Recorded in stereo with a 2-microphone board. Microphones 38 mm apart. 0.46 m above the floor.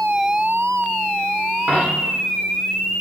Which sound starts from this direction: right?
A dropped coin, at 1.7 s.